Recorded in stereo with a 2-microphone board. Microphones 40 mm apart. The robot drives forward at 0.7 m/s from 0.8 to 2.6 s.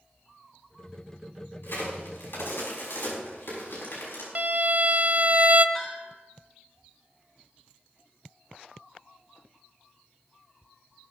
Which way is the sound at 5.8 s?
20° left (ahead or behind).